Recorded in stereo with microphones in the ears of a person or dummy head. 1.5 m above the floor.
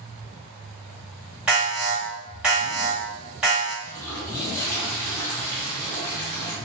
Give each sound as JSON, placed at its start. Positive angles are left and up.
{"t": 1.5, "sound": "an alarm", "side_deg": -5, "distance_m": 1.5}
{"t": 3.8, "sound": "a toilet flushing", "side_deg": 15, "distance_m": 1.0}